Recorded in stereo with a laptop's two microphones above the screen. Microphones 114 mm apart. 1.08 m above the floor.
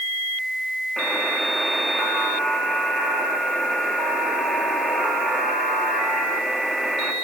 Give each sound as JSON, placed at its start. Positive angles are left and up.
{"t": 1.0, "sound": "a buzzer", "side_deg": 0, "distance_m": 2.5}